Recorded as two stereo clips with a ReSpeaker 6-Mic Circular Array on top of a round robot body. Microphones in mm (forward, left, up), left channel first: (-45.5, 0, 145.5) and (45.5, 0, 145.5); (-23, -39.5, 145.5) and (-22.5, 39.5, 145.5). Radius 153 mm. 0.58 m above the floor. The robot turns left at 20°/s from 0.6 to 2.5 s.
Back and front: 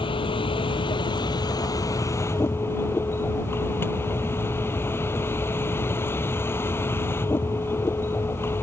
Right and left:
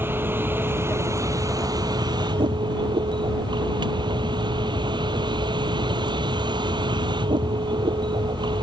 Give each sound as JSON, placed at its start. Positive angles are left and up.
{"t": 0.0, "sound": "a vehicle", "azimuth_deg": 155}